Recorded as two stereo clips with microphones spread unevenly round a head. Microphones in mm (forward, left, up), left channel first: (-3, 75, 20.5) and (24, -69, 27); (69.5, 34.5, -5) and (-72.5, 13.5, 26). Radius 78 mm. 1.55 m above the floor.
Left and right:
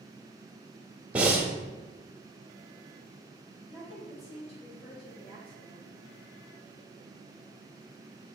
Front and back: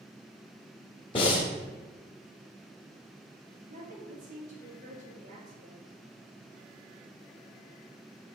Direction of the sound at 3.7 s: 155° left.